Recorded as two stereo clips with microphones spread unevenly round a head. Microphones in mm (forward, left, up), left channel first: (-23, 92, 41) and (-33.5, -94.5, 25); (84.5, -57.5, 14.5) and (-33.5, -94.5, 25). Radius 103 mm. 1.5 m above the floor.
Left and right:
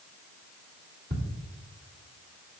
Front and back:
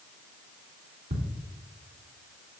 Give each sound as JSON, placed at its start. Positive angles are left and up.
{"t": 1.1, "sound": "ticking", "azimuth_deg": -145, "distance_m": 3.0}